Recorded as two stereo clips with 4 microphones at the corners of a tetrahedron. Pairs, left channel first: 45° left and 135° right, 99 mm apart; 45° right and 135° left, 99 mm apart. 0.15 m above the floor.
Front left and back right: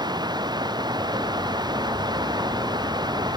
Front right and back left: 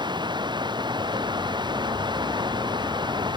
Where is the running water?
Straight behind.